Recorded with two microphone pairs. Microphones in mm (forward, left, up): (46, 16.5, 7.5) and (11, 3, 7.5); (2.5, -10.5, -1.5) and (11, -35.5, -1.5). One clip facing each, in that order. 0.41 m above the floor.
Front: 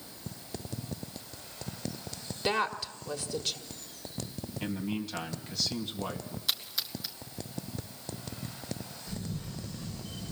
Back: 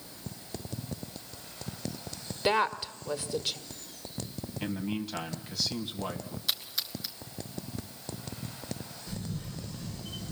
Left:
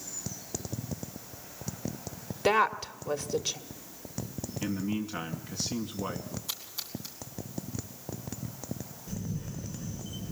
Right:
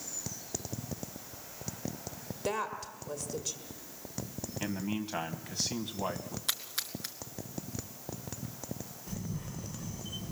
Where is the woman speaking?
125° left, 1.3 m.